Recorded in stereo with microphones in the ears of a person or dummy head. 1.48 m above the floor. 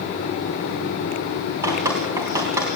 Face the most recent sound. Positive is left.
turn(degrees=-10)  # may be behind; listen again after turning